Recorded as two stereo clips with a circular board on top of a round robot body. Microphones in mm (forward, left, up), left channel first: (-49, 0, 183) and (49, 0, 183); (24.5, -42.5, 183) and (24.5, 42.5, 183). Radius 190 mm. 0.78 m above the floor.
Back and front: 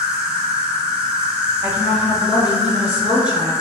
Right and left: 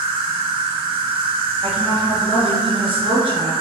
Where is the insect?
80° left, 0.8 m.